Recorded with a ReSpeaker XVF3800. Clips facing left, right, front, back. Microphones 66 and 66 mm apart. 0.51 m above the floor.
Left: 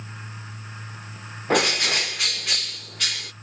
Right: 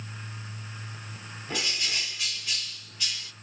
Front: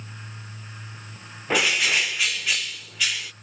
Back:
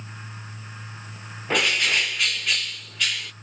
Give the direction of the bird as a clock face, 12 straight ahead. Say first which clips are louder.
Left 12 dB, even; 9 o'clock.